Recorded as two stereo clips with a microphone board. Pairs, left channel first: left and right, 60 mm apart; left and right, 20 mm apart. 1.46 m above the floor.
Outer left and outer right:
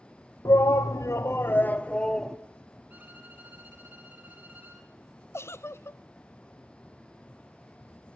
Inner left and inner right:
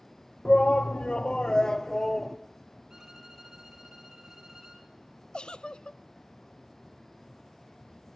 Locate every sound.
0.5 s a shout: 65° left (ahead or behind), 0.8 m; by 2.4 s 5° left (ahead or behind), 0.9 m
2.9 s a violin: 25° right (ahead or behind), 4.5 m
5.3 s a giggle: 45° left (ahead or behind), 0.5 m